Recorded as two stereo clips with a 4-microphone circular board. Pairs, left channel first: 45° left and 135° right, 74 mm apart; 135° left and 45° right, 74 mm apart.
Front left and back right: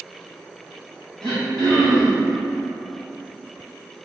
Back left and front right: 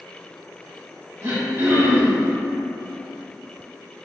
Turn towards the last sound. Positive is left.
turn(degrees=-30)